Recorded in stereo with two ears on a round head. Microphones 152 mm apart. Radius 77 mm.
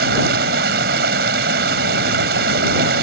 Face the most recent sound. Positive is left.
turn(degrees=-60)  # may be behind; listen again after turning